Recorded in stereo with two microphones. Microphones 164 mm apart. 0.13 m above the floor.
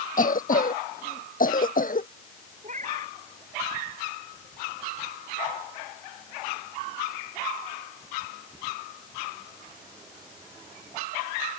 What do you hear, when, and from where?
0.2 s a cough: 55° left (ahead or behind)
2.6 s a cat meowing: 50° right (ahead or behind)